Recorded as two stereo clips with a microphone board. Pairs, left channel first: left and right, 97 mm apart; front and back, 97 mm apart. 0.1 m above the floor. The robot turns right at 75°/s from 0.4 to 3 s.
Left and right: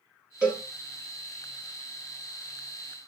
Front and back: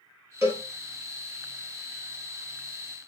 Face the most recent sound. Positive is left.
turn(degrees=45)